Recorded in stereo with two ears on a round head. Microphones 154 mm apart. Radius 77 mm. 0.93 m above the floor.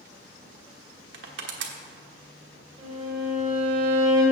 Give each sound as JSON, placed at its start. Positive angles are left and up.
{"t": 1.1, "sound": "crushing", "side_deg": -75, "distance_m": 1.2}
{"t": 2.8, "sound": "a violin", "side_deg": -30, "distance_m": 3.5}